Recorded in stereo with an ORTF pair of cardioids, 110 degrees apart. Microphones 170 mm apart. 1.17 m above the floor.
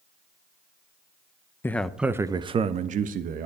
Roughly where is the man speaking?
Ahead.